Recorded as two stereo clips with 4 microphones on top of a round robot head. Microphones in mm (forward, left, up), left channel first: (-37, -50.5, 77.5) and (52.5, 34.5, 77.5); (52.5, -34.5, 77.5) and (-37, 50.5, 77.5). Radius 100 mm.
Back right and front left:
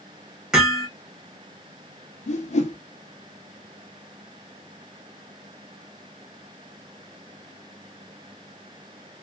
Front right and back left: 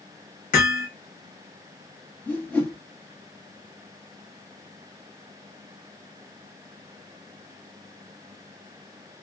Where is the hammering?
40° right, 1.4 m.